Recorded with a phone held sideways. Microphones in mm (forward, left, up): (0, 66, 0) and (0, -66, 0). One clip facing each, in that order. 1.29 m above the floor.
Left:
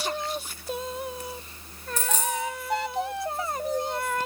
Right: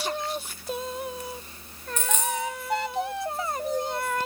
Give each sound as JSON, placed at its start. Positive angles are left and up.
{"t": 2.0, "sound": "a dropped coin", "side_deg": 35, "distance_m": 0.8}